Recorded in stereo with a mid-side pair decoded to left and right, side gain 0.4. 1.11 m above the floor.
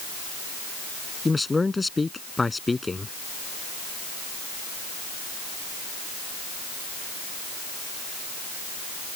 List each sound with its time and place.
1.2 s a man speaking: 20° left